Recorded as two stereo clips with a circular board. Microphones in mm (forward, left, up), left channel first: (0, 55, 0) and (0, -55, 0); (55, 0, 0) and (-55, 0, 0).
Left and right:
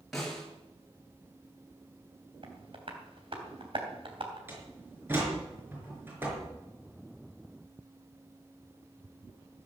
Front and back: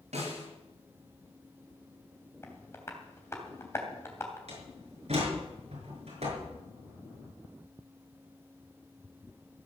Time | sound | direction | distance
0.1 | a snare drum | straight behind | 6.5 m
2.4 | tapping | 65° right | 3 m
4.5 | a door slam | 160° right | 5.5 m